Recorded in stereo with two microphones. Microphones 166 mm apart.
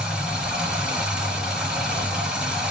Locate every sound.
0.0 s running water: 5° right (ahead or behind), 2.5 m